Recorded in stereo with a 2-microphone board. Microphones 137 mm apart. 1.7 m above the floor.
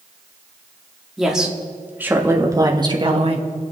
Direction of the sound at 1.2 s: Centre (ahead or behind).